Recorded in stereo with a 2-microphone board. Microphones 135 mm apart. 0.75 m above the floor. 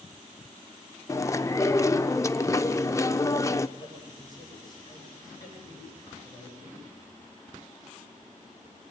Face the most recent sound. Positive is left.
turn(degrees=30)  # may be behind; listen again after turning